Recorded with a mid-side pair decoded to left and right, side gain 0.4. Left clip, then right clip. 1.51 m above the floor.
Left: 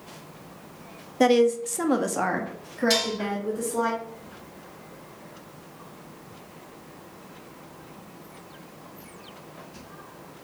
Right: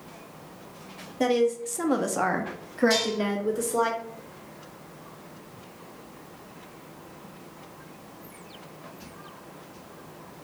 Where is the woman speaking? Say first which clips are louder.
Left 4 dB; 45° left, 0.7 m; by 3.9 s 50° right, 1.3 m.